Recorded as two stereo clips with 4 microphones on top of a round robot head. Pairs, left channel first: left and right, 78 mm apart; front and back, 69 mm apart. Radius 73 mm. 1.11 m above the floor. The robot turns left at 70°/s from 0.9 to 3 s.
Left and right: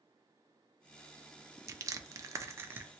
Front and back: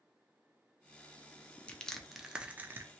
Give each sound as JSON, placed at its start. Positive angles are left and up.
{"t": 1.7, "sound": "crushing", "azimuth_deg": -60, "distance_m": 0.5}